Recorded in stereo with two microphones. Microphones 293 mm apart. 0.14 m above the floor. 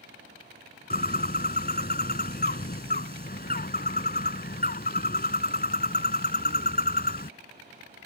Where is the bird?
30° left (ahead or behind).